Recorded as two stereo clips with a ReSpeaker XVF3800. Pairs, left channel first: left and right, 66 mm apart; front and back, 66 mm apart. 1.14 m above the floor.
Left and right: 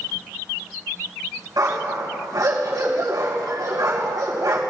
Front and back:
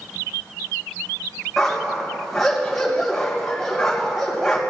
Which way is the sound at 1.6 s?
85° right.